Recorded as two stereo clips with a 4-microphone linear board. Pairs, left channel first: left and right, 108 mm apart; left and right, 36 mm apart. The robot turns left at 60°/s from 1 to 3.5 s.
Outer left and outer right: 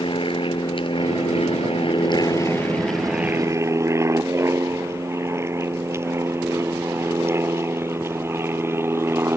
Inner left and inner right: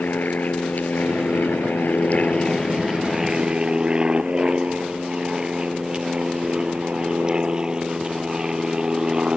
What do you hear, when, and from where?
0.0 s an aircraft: 55° left (ahead or behind); by 9.4 s 20° right (ahead or behind)